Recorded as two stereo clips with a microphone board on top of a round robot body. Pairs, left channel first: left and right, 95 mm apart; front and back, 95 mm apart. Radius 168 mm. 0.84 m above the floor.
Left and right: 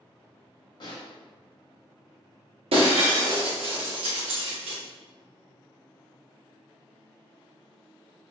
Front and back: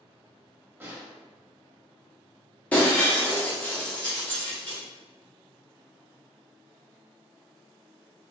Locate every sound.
0.8 s a snare drum: 120° left, 1.7 m
2.7 s breaking glass: 75° right, 1.0 m